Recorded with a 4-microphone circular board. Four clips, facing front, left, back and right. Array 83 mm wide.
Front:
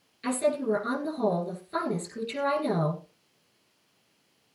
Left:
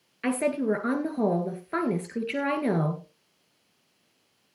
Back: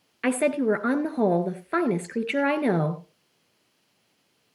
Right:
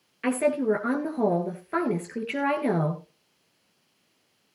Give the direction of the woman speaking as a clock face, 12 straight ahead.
6 o'clock.